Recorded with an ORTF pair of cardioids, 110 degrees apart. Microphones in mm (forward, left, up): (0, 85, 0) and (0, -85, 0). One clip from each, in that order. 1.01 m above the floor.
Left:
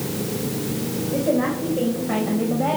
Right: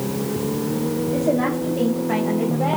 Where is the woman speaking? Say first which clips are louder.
Left 1 dB; 20° right, 3.5 m; by 2.8 s 5° right, 4.5 m.